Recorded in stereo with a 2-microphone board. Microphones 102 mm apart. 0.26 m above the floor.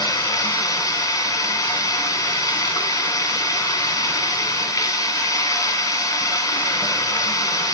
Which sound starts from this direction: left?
Running water, at 0.0 s.